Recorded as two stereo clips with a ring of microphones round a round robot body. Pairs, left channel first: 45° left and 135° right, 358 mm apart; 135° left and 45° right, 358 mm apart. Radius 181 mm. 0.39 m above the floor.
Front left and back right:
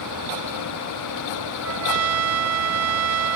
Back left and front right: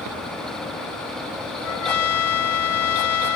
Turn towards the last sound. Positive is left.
turn(degrees=180)